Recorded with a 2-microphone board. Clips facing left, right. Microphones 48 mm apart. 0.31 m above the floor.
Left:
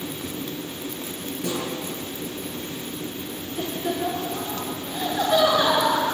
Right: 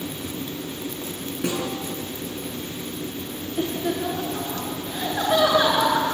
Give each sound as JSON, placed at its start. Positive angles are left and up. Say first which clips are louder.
{"t": 1.4, "sound": "a snare drum", "louder": "right 2 dB", "side_deg": -55, "distance_m": 6.5}
{"t": 3.6, "sound": "laughter", "louder": "right 2 dB", "side_deg": -15, "distance_m": 4.5}